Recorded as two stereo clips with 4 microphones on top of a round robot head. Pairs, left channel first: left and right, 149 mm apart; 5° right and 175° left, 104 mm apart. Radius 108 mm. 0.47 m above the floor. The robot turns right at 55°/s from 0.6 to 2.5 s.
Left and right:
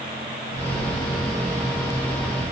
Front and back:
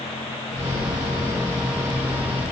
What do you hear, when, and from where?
Only background noise.